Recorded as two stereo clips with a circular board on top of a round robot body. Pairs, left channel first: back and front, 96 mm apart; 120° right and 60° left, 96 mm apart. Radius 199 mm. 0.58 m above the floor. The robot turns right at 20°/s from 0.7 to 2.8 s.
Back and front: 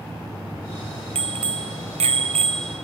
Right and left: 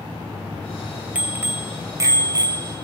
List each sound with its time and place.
1.1 s a bicycle bell: 15° right, 2.5 m; by 2.8 s 20° left, 2.5 m